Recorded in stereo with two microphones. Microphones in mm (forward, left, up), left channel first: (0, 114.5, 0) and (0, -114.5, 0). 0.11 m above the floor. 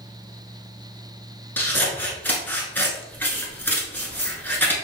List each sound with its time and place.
1.6 s scissors: 10° left (ahead or behind), 1.1 m